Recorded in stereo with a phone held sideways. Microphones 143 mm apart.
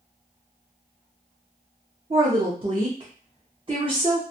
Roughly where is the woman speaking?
Right.